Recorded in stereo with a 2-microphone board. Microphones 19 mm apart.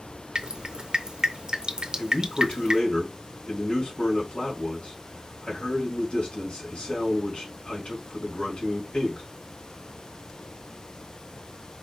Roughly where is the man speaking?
Left.